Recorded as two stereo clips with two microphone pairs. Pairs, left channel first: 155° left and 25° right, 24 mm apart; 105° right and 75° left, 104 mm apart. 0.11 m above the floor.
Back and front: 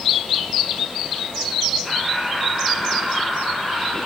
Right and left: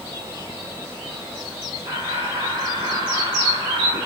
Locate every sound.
1.8 s laughter: 95° left, 8 m